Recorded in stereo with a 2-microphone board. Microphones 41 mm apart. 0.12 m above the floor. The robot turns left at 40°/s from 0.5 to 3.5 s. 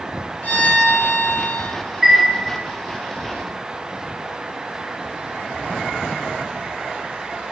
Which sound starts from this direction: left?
A violin, at 0.4 s.